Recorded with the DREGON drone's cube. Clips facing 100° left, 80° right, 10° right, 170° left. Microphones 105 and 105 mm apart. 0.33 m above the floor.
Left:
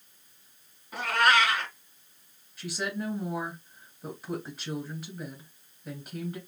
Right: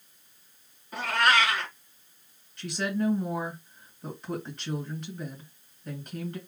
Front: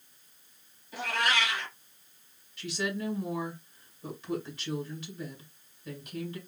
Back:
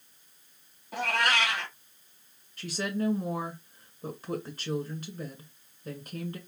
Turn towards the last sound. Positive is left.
turn(degrees=-175)